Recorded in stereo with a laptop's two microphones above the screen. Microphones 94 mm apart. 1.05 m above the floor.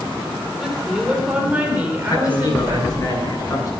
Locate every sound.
0.6 s a woman speaking: 10° right (ahead or behind), 4 m; by 3.1 s 25° right (ahead or behind), 4.5 m
2.1 s a man speaking: 40° left (ahead or behind), 10 m